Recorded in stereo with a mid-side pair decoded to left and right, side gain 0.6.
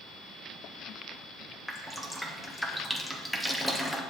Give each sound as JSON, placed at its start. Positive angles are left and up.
{"t": 1.7, "sound": "dripping", "azimuth_deg": 0, "distance_m": 0.9}